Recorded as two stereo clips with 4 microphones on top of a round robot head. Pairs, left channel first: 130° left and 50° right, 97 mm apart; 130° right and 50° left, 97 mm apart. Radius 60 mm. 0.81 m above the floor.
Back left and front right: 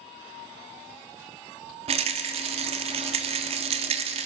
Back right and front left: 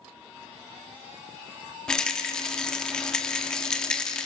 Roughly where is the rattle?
Ahead right.